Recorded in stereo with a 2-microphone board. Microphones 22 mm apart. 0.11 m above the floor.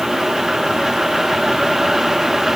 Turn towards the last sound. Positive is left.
No sound to turn to.